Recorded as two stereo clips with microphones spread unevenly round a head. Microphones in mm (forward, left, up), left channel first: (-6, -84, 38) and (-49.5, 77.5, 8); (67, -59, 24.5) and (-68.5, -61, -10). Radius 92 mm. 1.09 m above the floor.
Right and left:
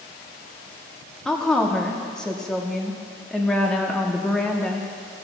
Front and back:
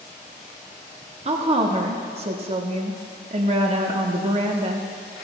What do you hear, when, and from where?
1.2 s a woman speaking: 170° right, 1.0 m